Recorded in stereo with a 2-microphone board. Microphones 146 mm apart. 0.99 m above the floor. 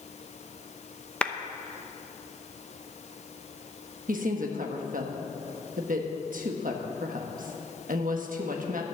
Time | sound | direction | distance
1.2 | a clap | 10° left (ahead or behind) | 0.7 m
4.1 | a woman speaking | 70° right (ahead or behind) | 1.2 m